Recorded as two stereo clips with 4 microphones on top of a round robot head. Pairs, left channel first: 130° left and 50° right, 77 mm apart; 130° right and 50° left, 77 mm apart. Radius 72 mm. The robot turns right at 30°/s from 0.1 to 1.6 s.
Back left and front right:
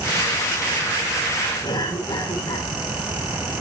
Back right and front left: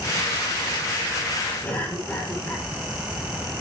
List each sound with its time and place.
1.6 s a cough: 165° left, 4.5 m